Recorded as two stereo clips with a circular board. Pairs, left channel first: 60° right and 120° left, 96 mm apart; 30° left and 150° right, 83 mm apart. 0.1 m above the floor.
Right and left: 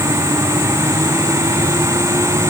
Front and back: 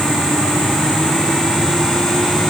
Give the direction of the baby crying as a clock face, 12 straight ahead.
No baby crying in this recording.